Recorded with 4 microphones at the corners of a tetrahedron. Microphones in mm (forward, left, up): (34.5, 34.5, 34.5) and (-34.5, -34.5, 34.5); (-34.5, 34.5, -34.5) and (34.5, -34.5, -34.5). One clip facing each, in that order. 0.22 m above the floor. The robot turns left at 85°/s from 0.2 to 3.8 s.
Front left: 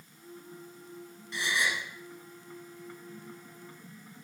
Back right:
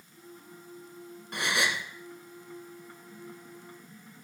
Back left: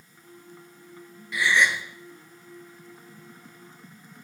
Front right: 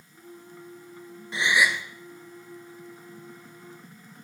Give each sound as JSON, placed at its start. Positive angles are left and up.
{"t": 1.3, "sound": "a gasp", "azimuth_deg": -105, "distance_m": 1.0}